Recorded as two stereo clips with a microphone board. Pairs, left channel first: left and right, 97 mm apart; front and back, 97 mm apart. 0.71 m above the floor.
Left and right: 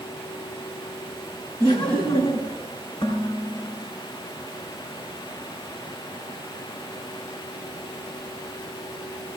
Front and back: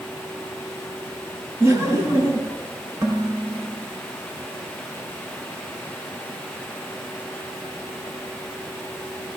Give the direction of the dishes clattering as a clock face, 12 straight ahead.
8 o'clock.